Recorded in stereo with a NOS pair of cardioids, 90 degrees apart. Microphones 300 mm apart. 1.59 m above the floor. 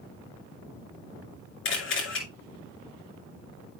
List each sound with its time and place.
1.6 s a camera shutter: 45° left, 2.5 m